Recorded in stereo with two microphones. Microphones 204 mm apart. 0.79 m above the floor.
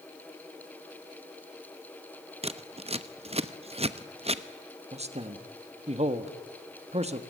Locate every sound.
2.4 s scissors: 30° right (ahead or behind), 0.8 m
4.9 s a man speaking: 30° right (ahead or behind), 1.5 m